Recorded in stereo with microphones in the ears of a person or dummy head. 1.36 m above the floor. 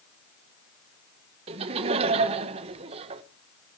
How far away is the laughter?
About 1.5 m.